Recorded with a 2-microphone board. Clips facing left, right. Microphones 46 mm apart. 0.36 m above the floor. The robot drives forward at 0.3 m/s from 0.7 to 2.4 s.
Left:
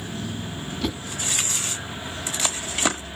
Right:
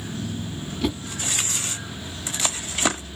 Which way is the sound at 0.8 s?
5° right (ahead or behind).